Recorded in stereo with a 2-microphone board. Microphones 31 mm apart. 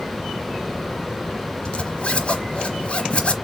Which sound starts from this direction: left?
A zipper, at 1.6 s.